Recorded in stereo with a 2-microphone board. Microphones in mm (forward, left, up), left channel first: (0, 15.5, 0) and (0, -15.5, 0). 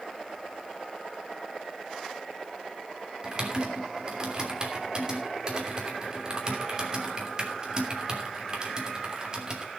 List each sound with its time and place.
3.2 s typing on a keyboard: 30° right (ahead or behind), 3 m